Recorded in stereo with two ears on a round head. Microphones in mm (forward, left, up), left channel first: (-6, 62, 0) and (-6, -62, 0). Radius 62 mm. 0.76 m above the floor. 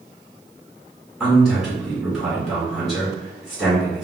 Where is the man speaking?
Centre (ahead or behind), 1.5 m.